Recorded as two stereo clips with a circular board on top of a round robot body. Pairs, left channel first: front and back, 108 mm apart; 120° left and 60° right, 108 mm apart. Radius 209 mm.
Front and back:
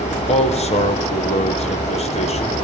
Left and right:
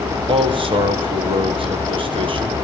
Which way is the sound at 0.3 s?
20° right.